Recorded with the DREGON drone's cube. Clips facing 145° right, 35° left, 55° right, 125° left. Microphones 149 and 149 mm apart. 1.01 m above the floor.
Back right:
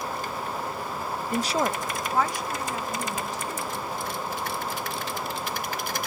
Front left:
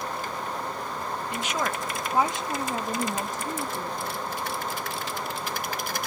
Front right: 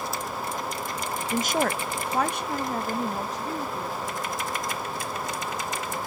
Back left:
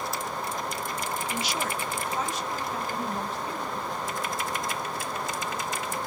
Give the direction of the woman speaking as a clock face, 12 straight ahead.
3 o'clock.